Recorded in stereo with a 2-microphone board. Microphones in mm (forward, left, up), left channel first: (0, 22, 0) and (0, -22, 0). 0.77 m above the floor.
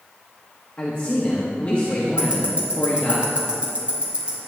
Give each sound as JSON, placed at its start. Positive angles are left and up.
{"t": 0.8, "sound": "a man speaking", "side_deg": 30, "distance_m": 1.2}
{"t": 2.2, "sound": "ticking", "side_deg": -25, "distance_m": 2.5}